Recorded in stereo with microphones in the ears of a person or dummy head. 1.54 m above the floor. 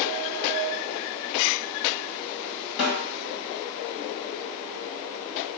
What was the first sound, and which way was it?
A snare drum, 65° left (ahead or behind).